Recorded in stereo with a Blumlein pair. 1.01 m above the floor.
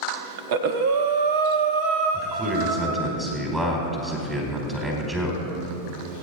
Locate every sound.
0.4 s breathing: 50° right, 1.3 m
2.1 s a man speaking: 10° right, 4.5 m